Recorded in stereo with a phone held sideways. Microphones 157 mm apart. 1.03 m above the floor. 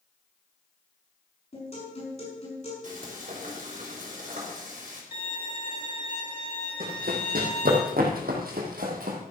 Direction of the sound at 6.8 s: 70° right (ahead or behind).